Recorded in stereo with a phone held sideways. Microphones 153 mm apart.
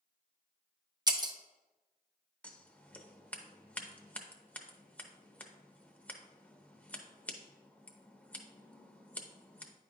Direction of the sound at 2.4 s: 10° left (ahead or behind).